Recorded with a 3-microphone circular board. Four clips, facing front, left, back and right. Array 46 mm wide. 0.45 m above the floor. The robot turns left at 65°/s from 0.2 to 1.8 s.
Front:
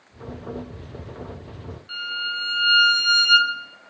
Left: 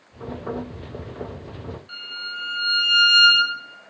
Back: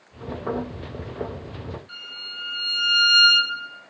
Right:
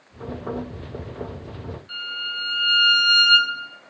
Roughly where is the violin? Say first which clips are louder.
Right 5 dB, front 9 dB; ahead.